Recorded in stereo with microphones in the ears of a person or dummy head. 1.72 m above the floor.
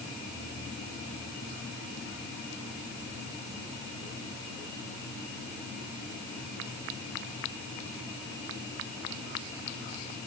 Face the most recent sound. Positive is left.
No sound to turn to.